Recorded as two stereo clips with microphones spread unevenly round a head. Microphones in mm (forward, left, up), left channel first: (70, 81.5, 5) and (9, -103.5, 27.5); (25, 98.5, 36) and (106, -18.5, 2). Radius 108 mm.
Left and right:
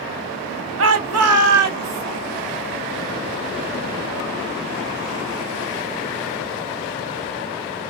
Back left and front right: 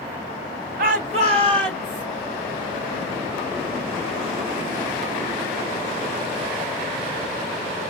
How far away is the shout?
About 0.7 m.